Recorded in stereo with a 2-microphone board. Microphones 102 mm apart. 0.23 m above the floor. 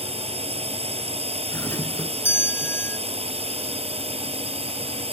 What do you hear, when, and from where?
0.0 s a drone: 75° right (ahead or behind)
1.5 s a doorbell: 20° left (ahead or behind)